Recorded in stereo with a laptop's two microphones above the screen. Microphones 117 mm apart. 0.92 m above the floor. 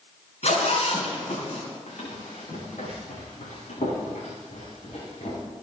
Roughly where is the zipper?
Left.